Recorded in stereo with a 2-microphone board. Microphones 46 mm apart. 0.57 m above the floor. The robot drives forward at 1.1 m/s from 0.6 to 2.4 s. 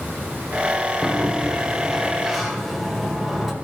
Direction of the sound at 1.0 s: 10° right (ahead or behind).